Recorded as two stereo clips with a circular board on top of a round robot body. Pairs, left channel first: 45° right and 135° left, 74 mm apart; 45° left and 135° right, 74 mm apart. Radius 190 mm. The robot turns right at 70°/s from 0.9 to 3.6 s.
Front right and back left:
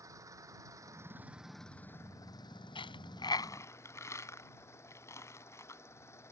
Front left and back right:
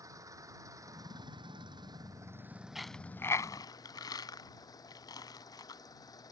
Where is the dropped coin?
50° right; by 5.8 s 10° left.